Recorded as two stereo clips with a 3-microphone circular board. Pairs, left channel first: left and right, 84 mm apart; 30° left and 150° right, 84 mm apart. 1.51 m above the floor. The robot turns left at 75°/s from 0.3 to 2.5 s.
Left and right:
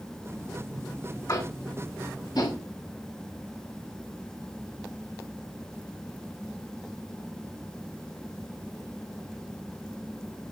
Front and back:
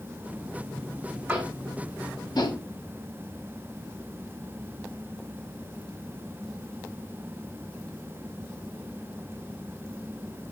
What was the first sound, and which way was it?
Tapping, 140° left.